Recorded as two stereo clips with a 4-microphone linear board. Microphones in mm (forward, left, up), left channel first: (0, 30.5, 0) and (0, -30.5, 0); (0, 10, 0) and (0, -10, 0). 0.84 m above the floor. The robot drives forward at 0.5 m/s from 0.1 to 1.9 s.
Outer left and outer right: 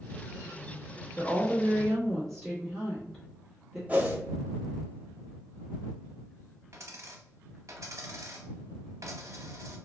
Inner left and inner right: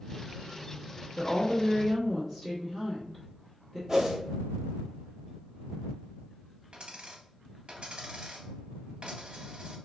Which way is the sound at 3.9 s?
25° right (ahead or behind).